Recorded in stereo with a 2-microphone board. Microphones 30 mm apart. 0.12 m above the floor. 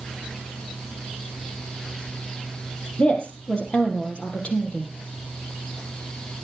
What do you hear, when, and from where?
3.0 s a woman speaking: 35° left (ahead or behind), 4 m